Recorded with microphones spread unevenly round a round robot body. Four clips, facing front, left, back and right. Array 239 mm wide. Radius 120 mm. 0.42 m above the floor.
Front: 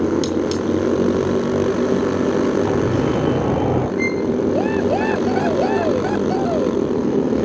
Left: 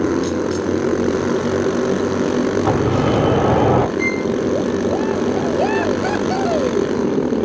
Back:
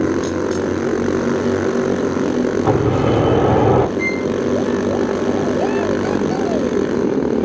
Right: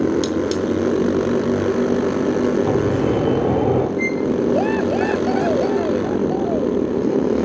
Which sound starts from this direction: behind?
A sliding door, at 2.6 s.